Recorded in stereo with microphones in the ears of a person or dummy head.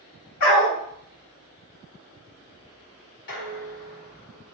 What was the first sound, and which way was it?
A dog barking, 45° left (ahead or behind).